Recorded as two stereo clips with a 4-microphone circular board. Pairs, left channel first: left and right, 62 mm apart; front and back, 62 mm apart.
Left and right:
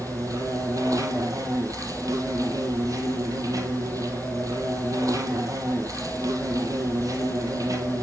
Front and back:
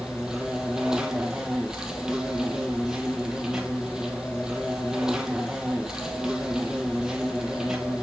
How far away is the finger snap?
No finger snap in this recording.